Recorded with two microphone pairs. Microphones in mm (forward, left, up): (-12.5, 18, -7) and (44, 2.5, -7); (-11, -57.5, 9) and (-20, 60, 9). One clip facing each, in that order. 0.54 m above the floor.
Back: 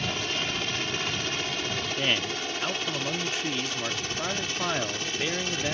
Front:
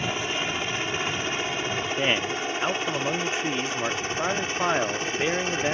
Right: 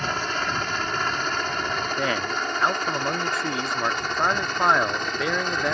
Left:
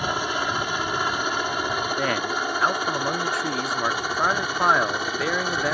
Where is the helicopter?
30° left; by 5.8 s 15° left.